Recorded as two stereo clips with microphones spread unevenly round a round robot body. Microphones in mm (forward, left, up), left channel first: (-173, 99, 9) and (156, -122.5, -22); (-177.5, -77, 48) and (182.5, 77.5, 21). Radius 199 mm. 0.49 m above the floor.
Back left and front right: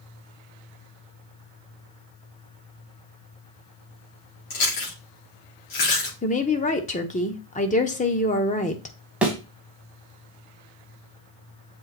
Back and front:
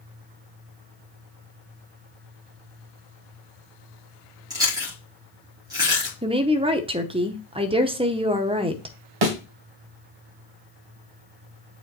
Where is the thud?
55° left, 1.7 m.